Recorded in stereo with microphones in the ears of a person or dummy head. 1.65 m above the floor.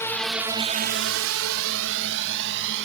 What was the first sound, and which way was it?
A drone, 10° left (ahead or behind).